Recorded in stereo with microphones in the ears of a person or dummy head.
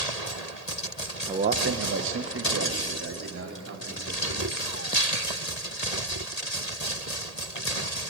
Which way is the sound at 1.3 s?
15° right (ahead or behind).